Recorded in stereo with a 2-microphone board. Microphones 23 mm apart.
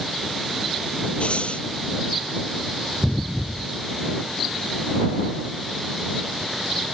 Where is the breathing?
65° left (ahead or behind).